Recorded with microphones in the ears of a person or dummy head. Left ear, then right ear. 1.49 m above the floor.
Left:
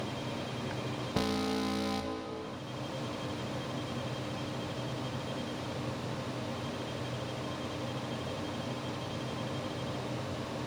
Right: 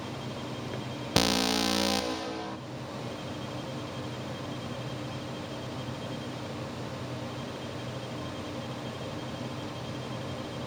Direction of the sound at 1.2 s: 80° right.